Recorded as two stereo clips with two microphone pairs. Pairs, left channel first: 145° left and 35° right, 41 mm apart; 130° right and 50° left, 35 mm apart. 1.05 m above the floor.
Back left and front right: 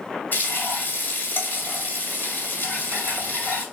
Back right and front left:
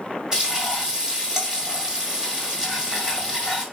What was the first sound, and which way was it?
Frying, 120° left.